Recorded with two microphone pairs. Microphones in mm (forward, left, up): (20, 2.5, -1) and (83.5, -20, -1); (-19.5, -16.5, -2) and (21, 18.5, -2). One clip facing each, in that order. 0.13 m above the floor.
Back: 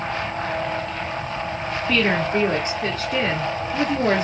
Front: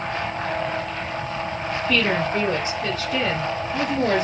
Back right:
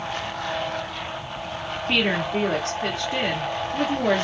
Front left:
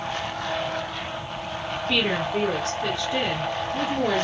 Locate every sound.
1.9 s a woman speaking: straight behind, 2 m